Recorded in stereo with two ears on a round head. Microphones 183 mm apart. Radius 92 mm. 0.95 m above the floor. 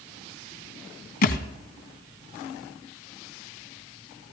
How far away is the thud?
About 2.0 m.